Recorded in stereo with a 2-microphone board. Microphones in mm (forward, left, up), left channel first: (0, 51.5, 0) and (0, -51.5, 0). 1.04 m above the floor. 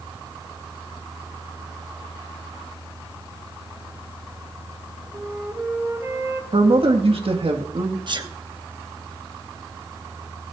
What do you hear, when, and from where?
5.1 s a flute: 25° right (ahead or behind), 2 m
6.5 s a man speaking: 65° right (ahead or behind), 1.7 m
8.1 s a sneeze: 50° right (ahead or behind), 1.2 m